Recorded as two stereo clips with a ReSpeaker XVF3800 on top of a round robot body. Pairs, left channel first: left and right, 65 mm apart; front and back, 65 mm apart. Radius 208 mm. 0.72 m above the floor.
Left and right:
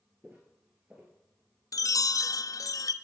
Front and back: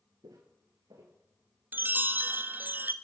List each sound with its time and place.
0.2 s footsteps: 165° right, 0.8 m
1.7 s a chime: 120° left, 0.6 m